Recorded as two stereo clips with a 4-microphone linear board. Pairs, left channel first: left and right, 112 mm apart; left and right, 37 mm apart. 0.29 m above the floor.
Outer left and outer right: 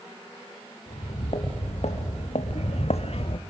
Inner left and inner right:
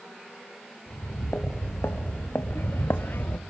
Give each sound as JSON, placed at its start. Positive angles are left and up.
{"t": 0.9, "sound": "footsteps", "side_deg": 85, "distance_m": 3.0}